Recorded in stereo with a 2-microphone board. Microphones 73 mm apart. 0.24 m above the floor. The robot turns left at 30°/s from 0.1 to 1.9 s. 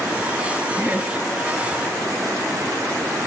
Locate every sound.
0.8 s laughter: 25° right (ahead or behind), 5 m; by 1.1 s 35° right (ahead or behind), 5 m